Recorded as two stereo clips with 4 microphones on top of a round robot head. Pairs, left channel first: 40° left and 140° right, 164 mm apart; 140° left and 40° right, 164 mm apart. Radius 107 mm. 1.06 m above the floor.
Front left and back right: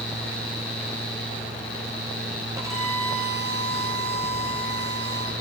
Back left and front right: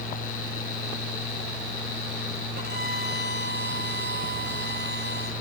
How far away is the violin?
About 7 m.